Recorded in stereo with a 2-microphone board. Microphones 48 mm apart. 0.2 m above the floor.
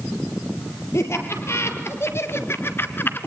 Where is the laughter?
65° left (ahead or behind), 4.5 m; by 3.3 s 45° left (ahead or behind), 1.7 m.